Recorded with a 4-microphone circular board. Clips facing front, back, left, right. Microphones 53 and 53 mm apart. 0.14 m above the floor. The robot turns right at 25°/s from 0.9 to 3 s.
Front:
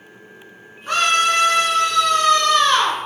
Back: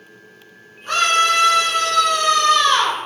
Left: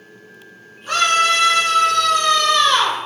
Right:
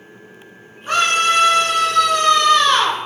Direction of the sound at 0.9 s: 60° right.